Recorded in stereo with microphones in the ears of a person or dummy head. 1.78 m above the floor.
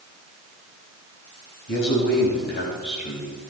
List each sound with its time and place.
1.7 s a man speaking: 65° left (ahead or behind), 3 m; by 3.5 s 45° left (ahead or behind), 3 m